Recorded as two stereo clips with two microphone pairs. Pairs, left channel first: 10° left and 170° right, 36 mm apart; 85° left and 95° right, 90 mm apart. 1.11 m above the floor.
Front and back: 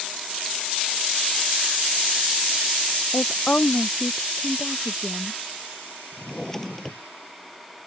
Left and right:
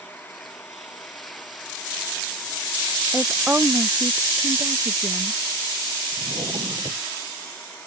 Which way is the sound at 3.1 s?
Straight ahead.